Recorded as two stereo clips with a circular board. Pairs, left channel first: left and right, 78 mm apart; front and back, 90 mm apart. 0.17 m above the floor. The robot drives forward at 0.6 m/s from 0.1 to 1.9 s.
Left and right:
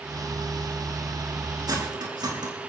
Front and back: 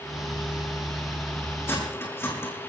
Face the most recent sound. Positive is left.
turn(degrees=-65)